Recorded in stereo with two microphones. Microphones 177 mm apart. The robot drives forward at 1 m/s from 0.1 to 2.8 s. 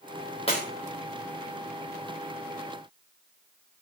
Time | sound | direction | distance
0.5 | breaking glass | 35° left (ahead or behind) | 8.5 m